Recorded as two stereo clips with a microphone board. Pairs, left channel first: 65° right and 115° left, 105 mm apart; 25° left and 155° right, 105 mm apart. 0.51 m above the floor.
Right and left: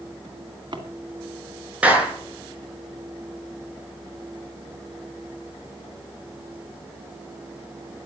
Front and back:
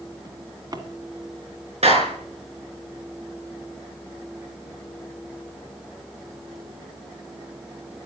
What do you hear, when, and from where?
0.2 s a drawer: 155° left, 1.8 m
1.8 s a clap: 170° right, 6 m